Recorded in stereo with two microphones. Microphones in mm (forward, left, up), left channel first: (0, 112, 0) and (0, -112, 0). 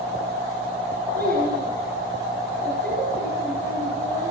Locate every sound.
1.1 s a child speaking: 45° right (ahead or behind), 7.5 m